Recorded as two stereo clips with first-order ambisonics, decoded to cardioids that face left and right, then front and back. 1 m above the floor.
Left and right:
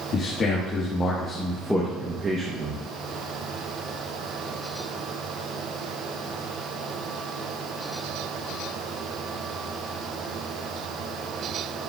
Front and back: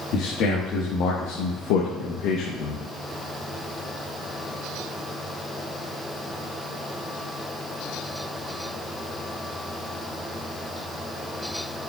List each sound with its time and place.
0.1 s a man speaking: 35° left, 2.0 m; by 2.8 s 40° right, 1.3 m